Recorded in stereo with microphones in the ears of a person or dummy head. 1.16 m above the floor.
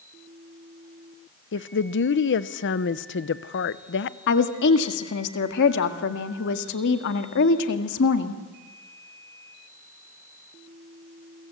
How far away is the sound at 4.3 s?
About 1.7 m.